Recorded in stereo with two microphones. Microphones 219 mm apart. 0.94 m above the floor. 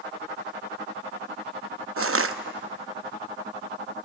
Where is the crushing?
80° right, 0.7 m.